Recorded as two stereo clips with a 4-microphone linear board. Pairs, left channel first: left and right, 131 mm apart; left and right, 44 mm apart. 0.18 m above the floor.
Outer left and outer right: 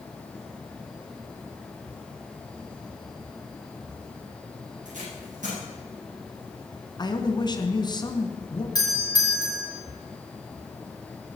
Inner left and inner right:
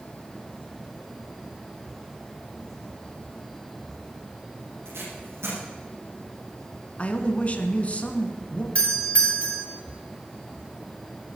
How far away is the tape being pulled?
About 9 m.